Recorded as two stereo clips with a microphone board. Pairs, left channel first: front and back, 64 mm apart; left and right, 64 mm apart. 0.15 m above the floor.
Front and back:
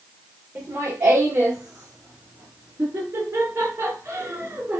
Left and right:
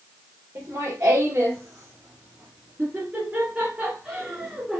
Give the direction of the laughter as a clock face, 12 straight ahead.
4 o'clock.